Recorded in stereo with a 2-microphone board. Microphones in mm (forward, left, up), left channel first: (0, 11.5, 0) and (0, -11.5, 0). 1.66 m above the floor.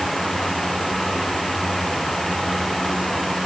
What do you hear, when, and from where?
Only background noise.